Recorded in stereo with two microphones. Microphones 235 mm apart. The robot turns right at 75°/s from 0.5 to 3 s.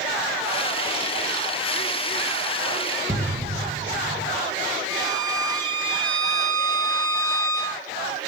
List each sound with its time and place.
3.1 s an explosion: 30° right (ahead or behind), 1.7 m
4.9 s a violin: 10° left (ahead or behind), 2.5 m